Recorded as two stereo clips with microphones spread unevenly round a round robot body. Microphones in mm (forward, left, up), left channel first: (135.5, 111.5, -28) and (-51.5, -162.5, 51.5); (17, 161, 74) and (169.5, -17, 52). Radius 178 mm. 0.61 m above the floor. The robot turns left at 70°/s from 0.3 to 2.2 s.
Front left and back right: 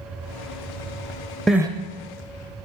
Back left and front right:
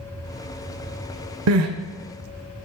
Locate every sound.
1.5 s crying: 40° right, 0.6 m; by 1.7 s 55° right, 0.6 m